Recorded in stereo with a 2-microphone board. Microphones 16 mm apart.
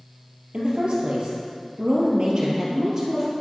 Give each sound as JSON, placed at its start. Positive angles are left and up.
{"t": 0.5, "sound": "a woman speaking", "side_deg": -60, "distance_m": 3.0}